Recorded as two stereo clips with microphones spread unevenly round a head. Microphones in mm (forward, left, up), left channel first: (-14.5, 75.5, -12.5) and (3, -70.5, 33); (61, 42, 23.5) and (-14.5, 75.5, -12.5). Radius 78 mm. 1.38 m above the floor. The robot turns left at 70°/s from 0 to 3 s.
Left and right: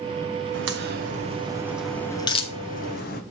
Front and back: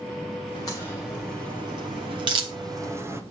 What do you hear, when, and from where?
0.5 s a crack: 85° right, 1.2 m; by 3.2 s 105° left, 1.2 m